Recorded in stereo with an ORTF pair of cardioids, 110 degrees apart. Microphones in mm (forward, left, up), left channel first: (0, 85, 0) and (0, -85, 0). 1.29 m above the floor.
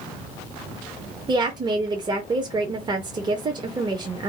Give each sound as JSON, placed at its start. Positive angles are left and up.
{"t": 1.3, "sound": "a woman speaking", "azimuth_deg": -25, "distance_m": 0.6}